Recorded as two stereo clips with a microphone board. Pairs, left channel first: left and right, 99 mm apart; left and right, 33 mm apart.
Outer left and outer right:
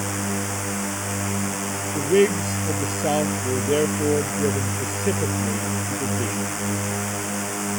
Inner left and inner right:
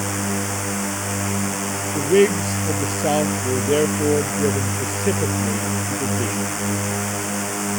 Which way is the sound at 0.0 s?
Centre (ahead or behind).